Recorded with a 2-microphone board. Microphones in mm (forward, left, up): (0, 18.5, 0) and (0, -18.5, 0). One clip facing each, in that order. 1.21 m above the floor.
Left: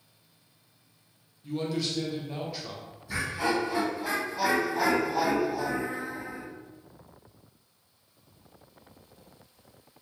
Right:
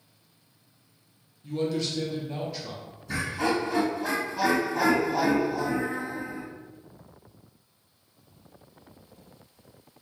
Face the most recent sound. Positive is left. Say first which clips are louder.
# right 1 dB
turn(degrees=-75)  # may be behind; listen again after turning